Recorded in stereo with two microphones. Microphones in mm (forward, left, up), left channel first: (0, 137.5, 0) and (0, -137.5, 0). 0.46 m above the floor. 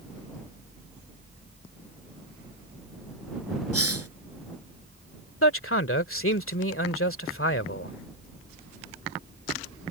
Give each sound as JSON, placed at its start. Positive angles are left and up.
{"t": 3.7, "sound": "a hiss", "side_deg": -60}
{"t": 5.4, "sound": "a man speaking", "side_deg": 50}